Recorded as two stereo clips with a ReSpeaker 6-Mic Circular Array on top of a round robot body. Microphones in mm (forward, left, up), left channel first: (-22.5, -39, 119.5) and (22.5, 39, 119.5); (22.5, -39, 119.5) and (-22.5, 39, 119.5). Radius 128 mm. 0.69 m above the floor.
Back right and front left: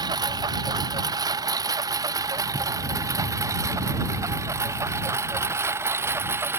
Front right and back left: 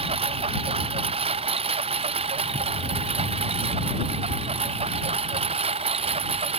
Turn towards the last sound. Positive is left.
turn(degrees=125)